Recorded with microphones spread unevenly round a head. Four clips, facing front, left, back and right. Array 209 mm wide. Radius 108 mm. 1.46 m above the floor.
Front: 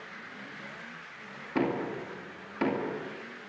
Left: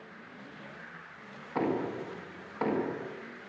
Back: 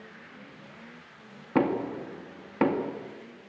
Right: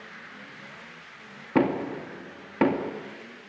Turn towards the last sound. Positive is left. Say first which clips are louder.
# right 6 dB, back 4 dB
turn(degrees=-125)